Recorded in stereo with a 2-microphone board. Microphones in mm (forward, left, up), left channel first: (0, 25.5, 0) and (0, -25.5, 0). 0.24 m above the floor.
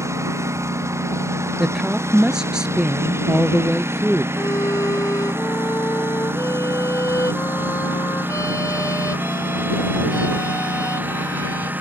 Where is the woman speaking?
10° right (ahead or behind).